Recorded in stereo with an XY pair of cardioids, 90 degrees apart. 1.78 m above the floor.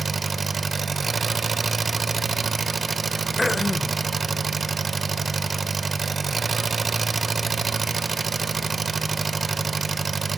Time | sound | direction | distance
0.0 | an engine running | 40° right | 1.5 m
3.4 | throat clearing | 15° left | 0.8 m